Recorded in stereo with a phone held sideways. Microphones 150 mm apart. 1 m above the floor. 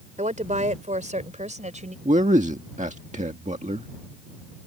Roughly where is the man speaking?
Right.